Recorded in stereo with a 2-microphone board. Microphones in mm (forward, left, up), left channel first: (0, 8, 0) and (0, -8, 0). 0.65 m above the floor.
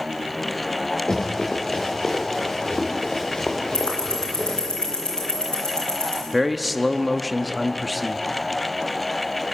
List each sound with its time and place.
1.1 s running footsteps: 50° left (ahead or behind), 6 m; by 4.6 s 70° left (ahead or behind), 5 m
3.7 s ticking: 55° left (ahead or behind), 8 m
6.3 s a man speaking: centre (ahead or behind), 0.9 m